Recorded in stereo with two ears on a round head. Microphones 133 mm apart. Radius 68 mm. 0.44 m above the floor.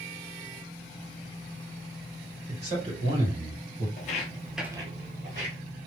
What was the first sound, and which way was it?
A man speaking, 50° right (ahead or behind).